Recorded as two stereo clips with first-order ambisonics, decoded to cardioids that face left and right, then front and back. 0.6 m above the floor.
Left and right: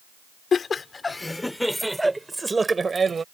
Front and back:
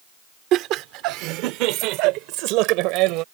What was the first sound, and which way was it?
Laughter, 150° left.